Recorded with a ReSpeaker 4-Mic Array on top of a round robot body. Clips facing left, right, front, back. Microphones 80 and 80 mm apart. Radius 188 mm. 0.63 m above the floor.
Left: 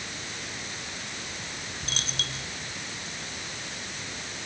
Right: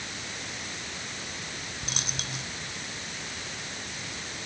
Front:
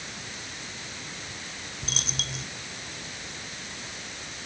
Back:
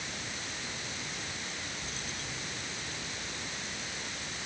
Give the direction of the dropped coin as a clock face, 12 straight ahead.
1 o'clock.